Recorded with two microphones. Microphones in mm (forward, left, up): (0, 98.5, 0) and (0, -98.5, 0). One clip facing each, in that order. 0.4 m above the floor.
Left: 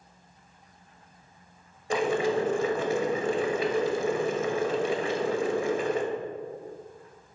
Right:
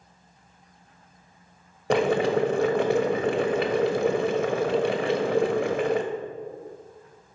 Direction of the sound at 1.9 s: 70° right (ahead or behind).